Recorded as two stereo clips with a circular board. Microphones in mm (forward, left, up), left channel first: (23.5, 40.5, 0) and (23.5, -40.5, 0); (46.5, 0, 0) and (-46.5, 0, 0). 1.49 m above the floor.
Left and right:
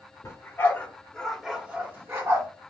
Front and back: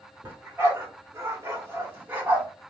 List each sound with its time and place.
0.2 s a dog barking: 125° left, 1.5 m; by 2.5 s 115° right, 1.4 m